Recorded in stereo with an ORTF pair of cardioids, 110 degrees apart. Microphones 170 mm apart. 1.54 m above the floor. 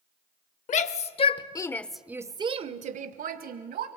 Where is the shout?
50° left, 1.2 m; by 3.9 s 70° right, 1.5 m.